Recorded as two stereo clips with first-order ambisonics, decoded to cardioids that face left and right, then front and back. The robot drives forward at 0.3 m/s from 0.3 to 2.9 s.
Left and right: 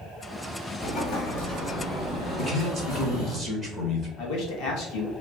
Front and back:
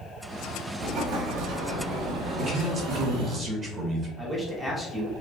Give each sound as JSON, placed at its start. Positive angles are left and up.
{"t": 0.8, "sound": "an explosion", "azimuth_deg": 145, "distance_m": 1.0}
{"t": 2.4, "sound": "a man speaking", "azimuth_deg": 150, "distance_m": 0.9}
{"t": 4.2, "sound": "a man speaking", "azimuth_deg": 105, "distance_m": 1.0}